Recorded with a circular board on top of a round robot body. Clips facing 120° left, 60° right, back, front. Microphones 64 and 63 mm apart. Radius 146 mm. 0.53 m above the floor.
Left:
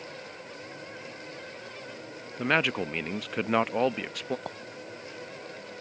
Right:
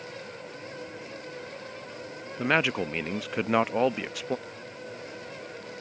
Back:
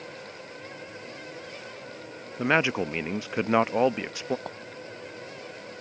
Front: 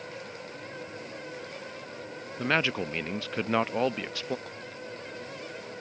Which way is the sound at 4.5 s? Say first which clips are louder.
Left 5 dB, back 5 dB; 135° left.